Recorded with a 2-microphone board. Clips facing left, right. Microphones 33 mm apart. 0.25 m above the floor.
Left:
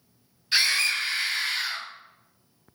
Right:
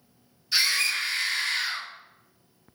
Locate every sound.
0.5 s a scream: 45° left (ahead or behind), 1.5 m; by 1.9 s 5° left (ahead or behind), 1.1 m